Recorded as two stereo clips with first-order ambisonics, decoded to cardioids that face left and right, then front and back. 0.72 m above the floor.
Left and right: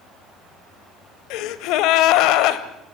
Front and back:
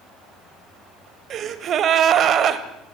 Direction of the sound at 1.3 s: 125° left.